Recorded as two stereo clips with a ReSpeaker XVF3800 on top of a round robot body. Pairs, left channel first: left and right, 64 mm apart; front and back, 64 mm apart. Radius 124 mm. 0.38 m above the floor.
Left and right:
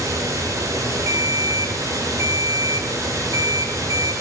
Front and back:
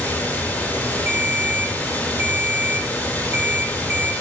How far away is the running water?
About 3 m.